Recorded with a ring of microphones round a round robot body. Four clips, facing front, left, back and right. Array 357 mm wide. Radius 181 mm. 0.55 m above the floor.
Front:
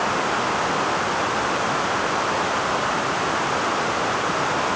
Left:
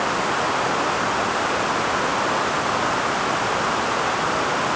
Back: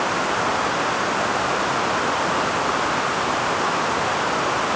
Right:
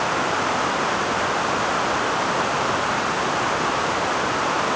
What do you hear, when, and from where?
Only background noise.